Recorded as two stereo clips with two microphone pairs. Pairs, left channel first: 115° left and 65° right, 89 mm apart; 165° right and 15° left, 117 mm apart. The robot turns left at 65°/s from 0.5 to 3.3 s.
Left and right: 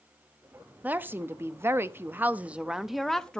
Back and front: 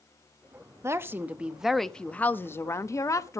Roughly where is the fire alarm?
I don't hear a fire alarm.